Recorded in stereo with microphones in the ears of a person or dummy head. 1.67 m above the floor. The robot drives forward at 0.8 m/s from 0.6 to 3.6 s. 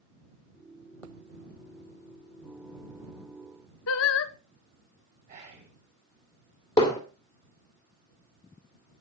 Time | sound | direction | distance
3.9 | singing | 80° left | 1.0 m
5.3 | whispering | 40° right (ahead or behind) | 4.5 m
6.8 | hammering | 20° left (ahead or behind) | 2 m